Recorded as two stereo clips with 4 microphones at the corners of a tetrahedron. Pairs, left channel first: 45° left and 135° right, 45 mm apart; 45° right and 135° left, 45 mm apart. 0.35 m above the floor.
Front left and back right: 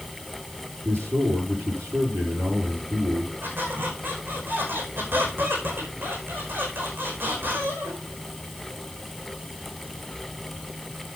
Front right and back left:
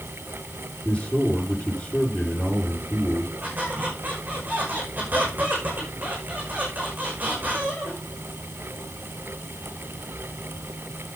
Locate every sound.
0.8 s a man speaking: 120° right, 8 m
3.4 s a squeak: 175° right, 5.5 m